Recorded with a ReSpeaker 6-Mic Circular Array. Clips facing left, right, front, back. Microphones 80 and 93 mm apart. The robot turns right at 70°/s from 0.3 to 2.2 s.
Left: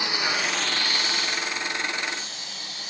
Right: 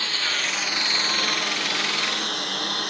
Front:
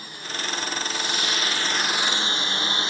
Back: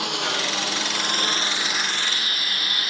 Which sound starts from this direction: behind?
A lawn mower, at 0.0 s.